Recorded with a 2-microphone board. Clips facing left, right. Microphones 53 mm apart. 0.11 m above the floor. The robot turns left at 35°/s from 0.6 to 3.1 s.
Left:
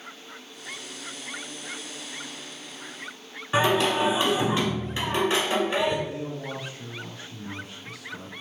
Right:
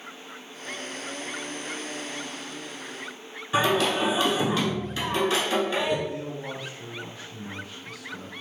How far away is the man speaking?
About 1.6 m.